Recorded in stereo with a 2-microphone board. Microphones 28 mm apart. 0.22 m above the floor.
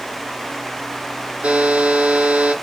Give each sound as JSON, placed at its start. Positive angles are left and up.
{"t": 1.4, "sound": "a buzzer", "side_deg": -45, "distance_m": 0.8}